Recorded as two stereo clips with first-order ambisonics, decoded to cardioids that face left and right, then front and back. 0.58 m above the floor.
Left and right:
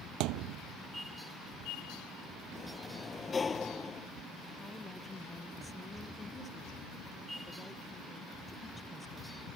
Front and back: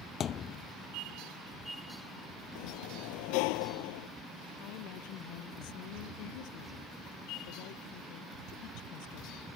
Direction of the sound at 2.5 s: 15° left.